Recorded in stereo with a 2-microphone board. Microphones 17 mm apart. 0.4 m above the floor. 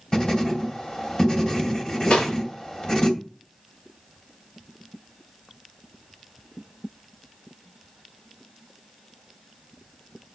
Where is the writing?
45° left (ahead or behind), 2 m.